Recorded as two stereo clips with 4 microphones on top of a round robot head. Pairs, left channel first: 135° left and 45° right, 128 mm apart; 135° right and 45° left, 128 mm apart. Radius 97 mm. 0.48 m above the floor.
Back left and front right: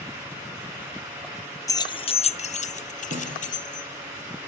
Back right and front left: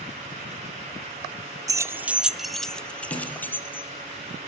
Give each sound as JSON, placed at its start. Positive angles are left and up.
{"t": 1.7, "sound": "keys jangling", "azimuth_deg": 90, "distance_m": 0.7}
{"t": 3.1, "sound": "a snare drum", "azimuth_deg": -80, "distance_m": 6.0}